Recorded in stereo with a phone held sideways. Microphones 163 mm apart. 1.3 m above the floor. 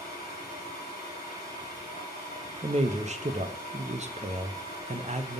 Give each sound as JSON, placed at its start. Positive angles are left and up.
{"t": 0.0, "sound": "a fan", "side_deg": -40, "distance_m": 3.5}
{"t": 2.6, "sound": "a man speaking", "side_deg": -45, "distance_m": 0.5}